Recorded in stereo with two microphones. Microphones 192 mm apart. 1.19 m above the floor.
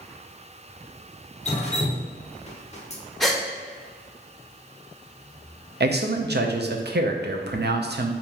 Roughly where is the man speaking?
Right.